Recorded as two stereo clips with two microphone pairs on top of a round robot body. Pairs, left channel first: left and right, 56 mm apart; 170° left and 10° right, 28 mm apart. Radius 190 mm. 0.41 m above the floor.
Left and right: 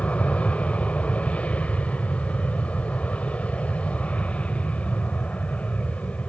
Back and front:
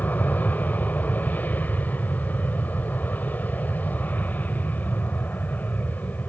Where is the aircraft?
155° left.